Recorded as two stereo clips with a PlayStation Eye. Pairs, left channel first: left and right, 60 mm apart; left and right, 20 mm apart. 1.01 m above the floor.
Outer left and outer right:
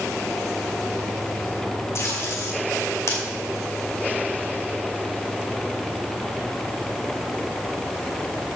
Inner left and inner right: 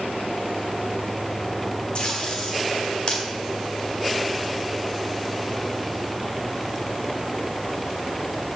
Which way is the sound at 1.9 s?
60° left (ahead or behind).